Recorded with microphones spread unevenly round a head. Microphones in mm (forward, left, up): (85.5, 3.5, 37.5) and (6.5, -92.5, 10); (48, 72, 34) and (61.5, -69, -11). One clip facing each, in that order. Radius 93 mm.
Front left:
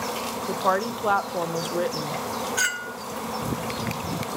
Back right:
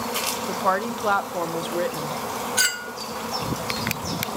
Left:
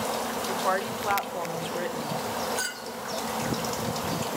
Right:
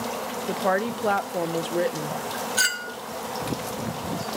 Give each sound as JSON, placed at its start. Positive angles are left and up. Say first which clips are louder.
{"t": 0.5, "sound": "a woman speaking", "louder": "even, right 6 dB", "azimuth_deg": -35, "distance_m": 0.6}
{"t": 2.6, "sound": "a clink", "louder": "even, right 2 dB", "azimuth_deg": -65, "distance_m": 0.5}